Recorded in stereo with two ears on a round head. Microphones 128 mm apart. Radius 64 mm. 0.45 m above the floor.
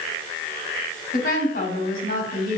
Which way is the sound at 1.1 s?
65° left (ahead or behind).